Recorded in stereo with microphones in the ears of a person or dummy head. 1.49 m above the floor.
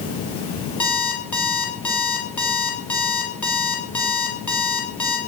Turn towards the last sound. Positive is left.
turn(degrees=5)  # may be behind; listen again after turning